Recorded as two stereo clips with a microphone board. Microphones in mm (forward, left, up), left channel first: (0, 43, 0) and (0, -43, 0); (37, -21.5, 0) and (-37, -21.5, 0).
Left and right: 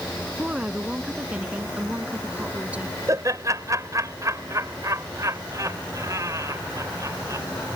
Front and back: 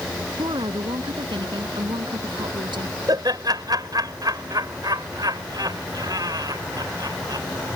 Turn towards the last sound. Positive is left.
turn(degrees=-145)